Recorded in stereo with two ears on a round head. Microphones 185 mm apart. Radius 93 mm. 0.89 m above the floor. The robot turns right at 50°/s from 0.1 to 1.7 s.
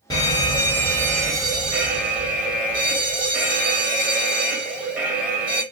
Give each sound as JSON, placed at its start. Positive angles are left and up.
{"t": 0.1, "sound": "a fire alarm", "side_deg": 20, "distance_m": 1.2}